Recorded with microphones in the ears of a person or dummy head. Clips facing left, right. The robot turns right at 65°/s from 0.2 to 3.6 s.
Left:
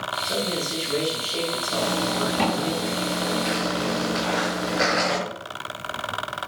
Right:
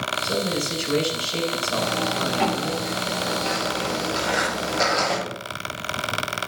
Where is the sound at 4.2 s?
25° right (ahead or behind), 3 m.